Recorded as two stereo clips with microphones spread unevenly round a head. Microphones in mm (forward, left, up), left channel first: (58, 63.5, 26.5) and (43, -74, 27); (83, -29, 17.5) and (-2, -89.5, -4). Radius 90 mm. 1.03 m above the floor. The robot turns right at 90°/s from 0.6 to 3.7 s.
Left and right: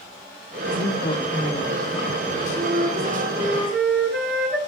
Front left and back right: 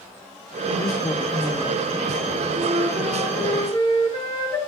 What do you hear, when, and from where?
0.7 s a woman speaking: 80° left, 2.5 m; by 1.8 s straight behind, 2.5 m
2.5 s a flute: 110° right, 9 m; by 4.6 s 5° right, 9 m